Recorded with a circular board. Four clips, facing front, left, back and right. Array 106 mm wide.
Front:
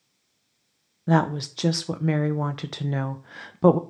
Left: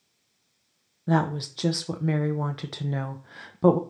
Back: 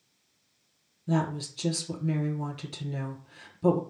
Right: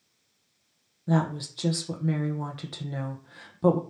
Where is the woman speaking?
20° left, 0.8 m.